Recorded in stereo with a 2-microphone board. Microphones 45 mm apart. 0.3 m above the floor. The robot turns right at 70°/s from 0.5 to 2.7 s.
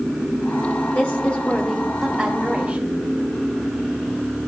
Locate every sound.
0.9 s a woman speaking: 25° left (ahead or behind), 1.4 m; by 3.0 s 15° right (ahead or behind), 1.4 m